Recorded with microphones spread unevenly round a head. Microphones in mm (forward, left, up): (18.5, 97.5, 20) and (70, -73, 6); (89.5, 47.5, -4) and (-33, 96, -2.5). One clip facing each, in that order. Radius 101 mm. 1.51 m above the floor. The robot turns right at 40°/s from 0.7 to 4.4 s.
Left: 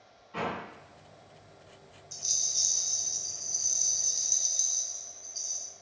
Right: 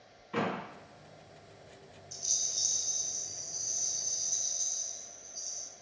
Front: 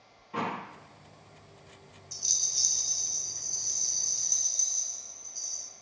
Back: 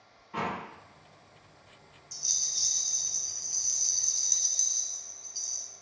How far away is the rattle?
About 0.5 m.